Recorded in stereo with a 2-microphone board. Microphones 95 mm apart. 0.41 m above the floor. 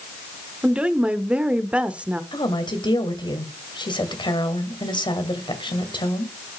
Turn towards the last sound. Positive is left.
turn(degrees=55)  # may be behind; listen again after turning